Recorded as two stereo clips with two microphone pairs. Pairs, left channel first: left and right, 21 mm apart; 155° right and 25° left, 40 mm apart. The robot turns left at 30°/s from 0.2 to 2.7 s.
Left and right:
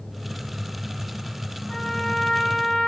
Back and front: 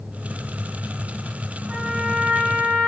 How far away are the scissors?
No scissors in this recording.